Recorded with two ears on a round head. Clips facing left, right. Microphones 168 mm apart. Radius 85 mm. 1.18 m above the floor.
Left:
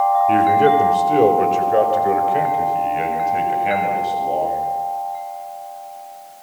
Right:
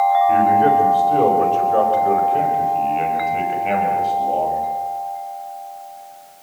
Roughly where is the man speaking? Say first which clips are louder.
Even; left.